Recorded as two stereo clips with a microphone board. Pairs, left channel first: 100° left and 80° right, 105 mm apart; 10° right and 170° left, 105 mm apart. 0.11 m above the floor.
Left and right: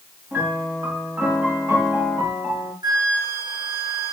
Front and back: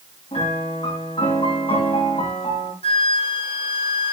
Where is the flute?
30° right, 3.5 m.